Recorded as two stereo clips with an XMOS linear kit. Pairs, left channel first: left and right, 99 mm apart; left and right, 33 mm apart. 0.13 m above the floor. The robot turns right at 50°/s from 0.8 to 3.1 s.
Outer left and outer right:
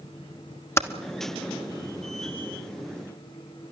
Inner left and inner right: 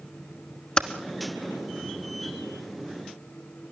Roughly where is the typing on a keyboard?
Left.